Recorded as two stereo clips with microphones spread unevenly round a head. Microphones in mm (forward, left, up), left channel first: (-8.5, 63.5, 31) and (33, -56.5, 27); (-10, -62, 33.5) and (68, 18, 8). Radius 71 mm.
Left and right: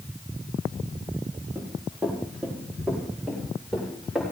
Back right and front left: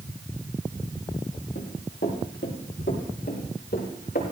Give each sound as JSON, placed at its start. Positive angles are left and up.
{"t": 1.6, "sound": "running footsteps", "azimuth_deg": -145, "distance_m": 4.0}